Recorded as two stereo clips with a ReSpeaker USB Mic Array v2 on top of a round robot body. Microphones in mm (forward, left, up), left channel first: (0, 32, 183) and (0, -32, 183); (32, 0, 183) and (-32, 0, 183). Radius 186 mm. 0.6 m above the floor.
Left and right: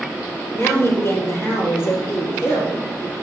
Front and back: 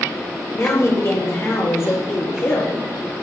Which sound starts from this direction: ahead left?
A woman speaking, at 0.5 s.